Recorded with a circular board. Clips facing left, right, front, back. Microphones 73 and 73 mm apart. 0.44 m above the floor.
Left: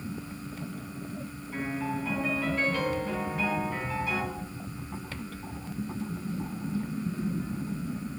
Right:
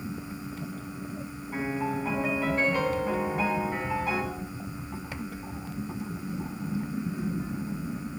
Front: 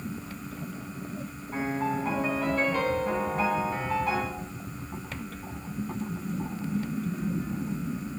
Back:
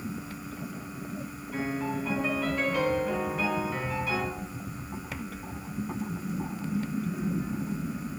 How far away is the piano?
About 3 m.